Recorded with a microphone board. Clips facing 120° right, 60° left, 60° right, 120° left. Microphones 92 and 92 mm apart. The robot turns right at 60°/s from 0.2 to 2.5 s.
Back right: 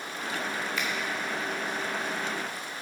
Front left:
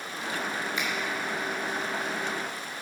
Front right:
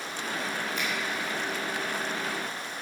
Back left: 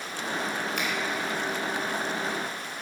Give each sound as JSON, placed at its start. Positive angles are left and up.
{"t": 0.8, "sound": "a finger snap", "azimuth_deg": 130, "distance_m": 3.0}